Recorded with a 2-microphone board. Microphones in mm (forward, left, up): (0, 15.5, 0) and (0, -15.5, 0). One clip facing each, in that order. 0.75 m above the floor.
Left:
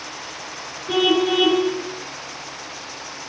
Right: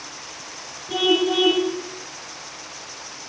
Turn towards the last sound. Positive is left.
turn(degrees=65)  # may be behind; listen again after turning